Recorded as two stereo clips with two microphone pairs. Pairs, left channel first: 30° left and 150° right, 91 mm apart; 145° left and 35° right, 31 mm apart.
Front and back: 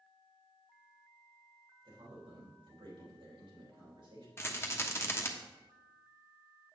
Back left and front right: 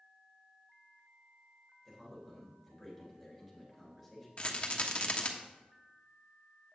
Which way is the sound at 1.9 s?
125° right.